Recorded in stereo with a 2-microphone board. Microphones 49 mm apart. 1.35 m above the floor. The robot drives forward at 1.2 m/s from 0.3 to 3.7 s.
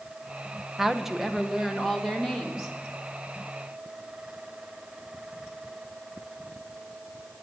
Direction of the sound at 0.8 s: 5° right (ahead or behind).